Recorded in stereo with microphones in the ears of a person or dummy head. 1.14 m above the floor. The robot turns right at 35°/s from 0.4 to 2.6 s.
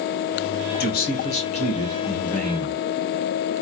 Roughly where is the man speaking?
Behind left.